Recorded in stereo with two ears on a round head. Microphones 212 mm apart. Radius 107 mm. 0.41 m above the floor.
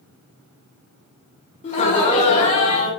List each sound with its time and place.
1.6 s laughter: 30° left (ahead or behind), 1.0 m